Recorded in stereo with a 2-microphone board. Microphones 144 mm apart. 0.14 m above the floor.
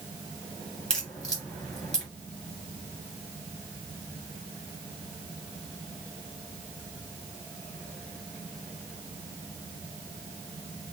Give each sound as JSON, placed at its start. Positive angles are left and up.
{"t": 0.9, "sound": "a crack", "side_deg": 5, "distance_m": 2.5}